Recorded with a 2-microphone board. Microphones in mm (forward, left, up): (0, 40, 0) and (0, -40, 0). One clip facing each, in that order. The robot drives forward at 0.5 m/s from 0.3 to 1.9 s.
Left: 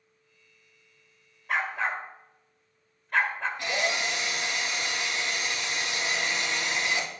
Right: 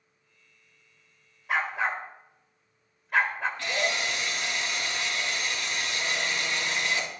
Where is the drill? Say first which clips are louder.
Left 1 dB; 20° left (ahead or behind), 2.5 m.